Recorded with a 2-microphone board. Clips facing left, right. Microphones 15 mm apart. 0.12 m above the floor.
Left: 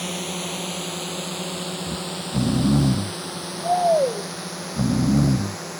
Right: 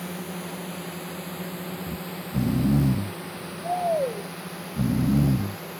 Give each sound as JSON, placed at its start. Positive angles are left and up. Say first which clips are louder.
{"t": 0.0, "sound": "a drone", "louder": "left 6 dB", "side_deg": 65}
{"t": 1.9, "sound": "snoring", "louder": "left 5 dB", "side_deg": 40}